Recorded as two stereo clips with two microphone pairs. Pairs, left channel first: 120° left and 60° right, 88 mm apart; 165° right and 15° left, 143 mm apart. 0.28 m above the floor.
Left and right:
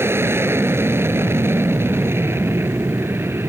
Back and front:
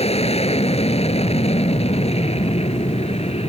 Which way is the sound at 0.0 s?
120° right.